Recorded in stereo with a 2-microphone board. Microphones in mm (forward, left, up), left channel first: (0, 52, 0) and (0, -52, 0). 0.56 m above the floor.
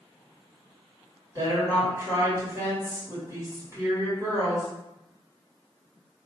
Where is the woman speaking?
35° right (ahead or behind), 2 m.